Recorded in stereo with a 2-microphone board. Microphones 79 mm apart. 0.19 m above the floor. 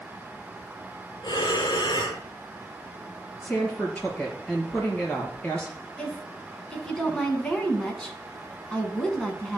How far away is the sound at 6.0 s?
About 1.6 m.